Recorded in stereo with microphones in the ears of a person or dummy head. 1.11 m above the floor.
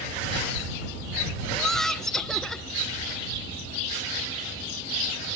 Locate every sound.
1.5 s laughter: centre (ahead or behind)